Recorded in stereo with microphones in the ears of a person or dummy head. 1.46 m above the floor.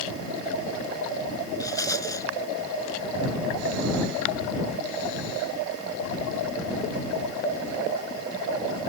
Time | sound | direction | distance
1.6 | a rattle | 20° left (ahead or behind) | ?